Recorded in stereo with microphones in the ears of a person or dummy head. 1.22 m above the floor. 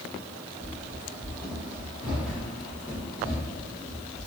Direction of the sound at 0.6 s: 20° right (ahead or behind).